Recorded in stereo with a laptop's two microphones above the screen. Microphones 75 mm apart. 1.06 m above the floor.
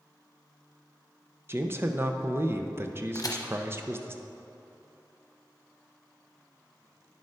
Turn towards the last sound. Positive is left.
turn(degrees=55)  # may be behind; listen again after turning